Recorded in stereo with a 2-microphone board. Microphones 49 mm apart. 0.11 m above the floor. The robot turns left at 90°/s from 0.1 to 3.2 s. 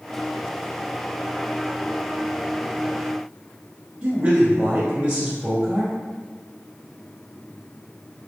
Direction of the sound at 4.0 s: 30° right (ahead or behind).